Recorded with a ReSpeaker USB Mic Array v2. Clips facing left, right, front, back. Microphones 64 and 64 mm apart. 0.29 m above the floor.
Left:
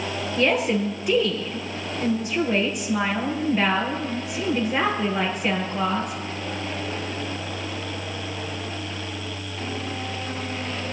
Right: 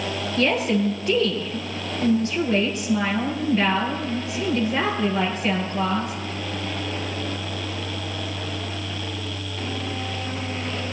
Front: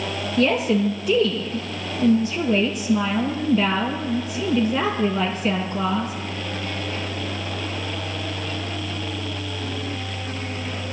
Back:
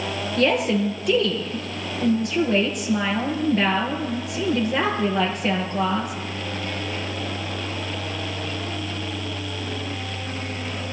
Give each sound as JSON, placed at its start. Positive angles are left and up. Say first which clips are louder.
{"t": 0.4, "sound": "a woman speaking", "louder": "even, front 1 dB", "azimuth_deg": 165, "distance_m": 5.5}